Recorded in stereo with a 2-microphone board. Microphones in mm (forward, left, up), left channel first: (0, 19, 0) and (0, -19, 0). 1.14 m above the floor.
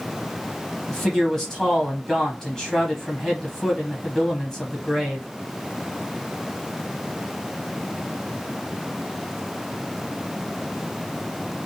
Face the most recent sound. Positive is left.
turn(degrees=10)  # may be behind; listen again after turning